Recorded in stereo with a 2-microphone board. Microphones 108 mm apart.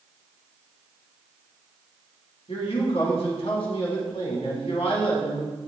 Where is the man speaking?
65° left (ahead or behind), 4.5 m.